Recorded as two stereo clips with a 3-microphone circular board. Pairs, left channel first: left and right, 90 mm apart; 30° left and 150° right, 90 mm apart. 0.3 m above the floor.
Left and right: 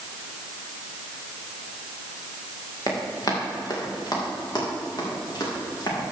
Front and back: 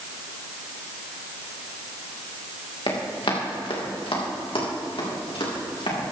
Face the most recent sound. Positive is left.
turn(degrees=45)